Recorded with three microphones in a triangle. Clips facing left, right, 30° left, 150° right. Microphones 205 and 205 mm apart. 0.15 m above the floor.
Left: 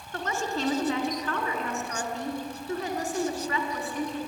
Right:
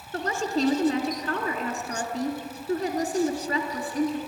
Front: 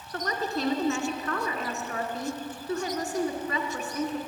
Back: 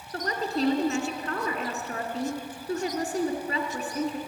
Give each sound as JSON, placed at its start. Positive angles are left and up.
{"t": 0.1, "sound": "a woman speaking", "azimuth_deg": -115, "distance_m": 1.5}